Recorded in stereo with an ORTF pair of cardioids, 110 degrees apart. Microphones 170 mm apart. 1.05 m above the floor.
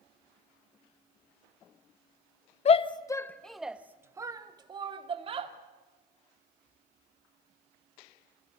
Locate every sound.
2.6 s a shout: 40° left, 1.0 m; by 5.5 s 35° right, 2.5 m